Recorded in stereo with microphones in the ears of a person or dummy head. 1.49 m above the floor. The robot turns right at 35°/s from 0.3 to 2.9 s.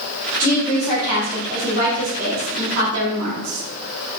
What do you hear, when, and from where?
0.4 s a woman speaking: 160° left, 3 m; by 3.6 s 115° right, 3 m